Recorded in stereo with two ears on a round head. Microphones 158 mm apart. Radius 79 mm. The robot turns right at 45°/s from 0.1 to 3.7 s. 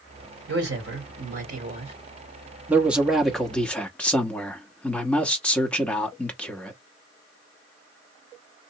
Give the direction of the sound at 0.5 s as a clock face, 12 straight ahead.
3 o'clock.